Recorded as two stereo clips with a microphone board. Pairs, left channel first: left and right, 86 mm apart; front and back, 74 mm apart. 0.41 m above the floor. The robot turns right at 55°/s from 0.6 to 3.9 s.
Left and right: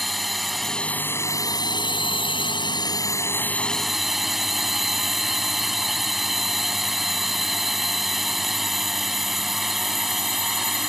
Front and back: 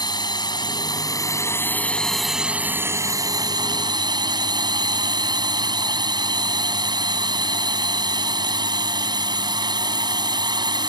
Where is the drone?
Straight ahead; by 10.9 s straight behind.